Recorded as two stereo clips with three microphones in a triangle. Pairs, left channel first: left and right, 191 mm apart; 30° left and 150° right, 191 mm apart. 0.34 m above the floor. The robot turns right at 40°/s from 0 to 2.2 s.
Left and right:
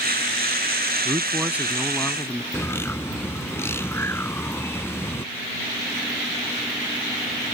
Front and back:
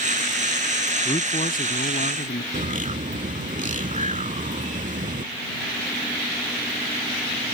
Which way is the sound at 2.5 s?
170° left.